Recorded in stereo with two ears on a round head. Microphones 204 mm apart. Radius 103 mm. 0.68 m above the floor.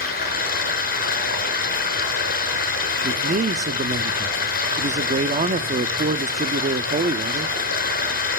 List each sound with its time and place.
0.0 s running water: 45° left (ahead or behind), 5 m
3.0 s a man speaking: 35° right (ahead or behind), 1.1 m